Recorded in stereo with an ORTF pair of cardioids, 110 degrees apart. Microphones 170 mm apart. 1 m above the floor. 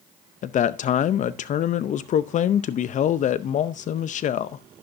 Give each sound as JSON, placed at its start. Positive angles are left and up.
{"t": 0.4, "sound": "a man speaking", "azimuth_deg": 50, "distance_m": 0.6}